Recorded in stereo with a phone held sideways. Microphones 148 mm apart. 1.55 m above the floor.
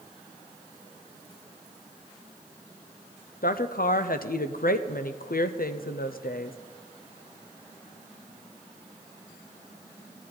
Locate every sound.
3.4 s a woman speaking: 75° left (ahead or behind), 0.7 m